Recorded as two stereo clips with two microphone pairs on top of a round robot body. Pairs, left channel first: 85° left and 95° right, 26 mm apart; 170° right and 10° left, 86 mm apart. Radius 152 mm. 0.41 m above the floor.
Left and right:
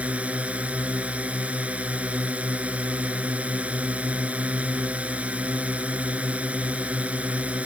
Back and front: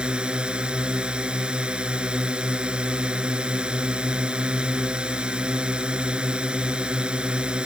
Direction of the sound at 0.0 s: 65° right.